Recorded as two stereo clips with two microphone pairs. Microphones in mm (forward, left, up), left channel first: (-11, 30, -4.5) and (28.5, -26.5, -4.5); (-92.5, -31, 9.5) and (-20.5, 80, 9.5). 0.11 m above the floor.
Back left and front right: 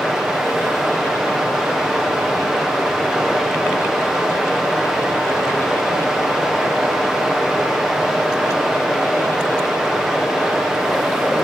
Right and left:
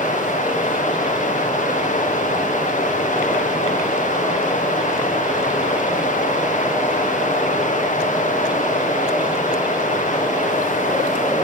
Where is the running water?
145° right, 4.5 m.